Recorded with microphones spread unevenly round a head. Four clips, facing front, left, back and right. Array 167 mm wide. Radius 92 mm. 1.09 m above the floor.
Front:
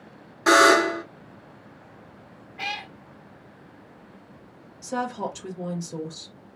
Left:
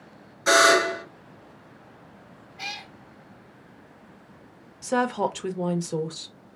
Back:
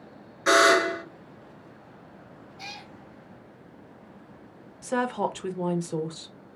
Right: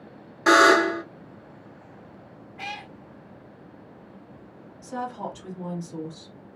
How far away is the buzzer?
About 2.5 m.